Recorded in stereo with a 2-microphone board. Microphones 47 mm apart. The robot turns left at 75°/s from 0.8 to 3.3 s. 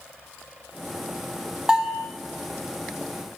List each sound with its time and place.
1.7 s a bell: 15° right (ahead or behind), 0.7 m; by 2.1 s 10° left (ahead or behind), 0.7 m